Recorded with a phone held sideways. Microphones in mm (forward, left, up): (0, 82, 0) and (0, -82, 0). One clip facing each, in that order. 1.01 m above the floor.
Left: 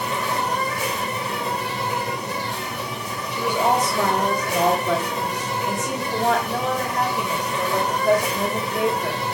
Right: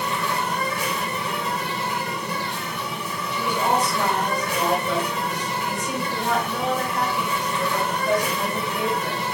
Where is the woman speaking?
80° left, 4.5 m.